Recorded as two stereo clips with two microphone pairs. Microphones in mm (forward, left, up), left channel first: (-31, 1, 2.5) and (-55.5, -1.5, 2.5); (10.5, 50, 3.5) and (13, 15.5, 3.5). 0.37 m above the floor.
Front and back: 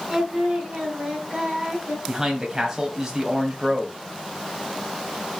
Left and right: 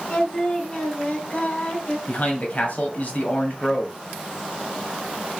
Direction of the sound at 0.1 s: 140° left.